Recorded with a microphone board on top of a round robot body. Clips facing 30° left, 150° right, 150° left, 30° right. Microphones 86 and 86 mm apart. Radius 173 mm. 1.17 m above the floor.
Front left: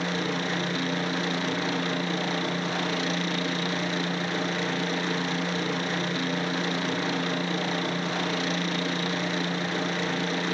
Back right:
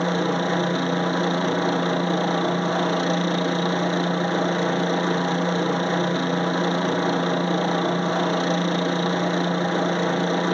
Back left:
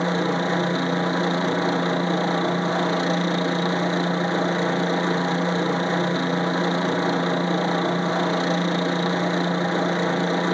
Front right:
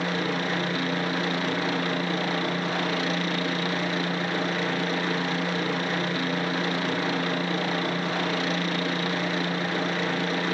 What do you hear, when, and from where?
0.0 s a helicopter: 165° right